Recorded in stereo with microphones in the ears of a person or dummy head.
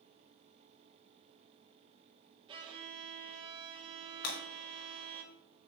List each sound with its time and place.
2.5 s a violin: 25° right (ahead or behind), 2 m
4.2 s breaking glass: 65° left (ahead or behind), 4 m